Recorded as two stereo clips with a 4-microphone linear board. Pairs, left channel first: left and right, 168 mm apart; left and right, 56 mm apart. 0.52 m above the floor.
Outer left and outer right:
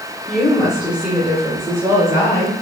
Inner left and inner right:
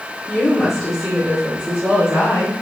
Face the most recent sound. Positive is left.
turn(degrees=-45)  # may be behind; listen again after turning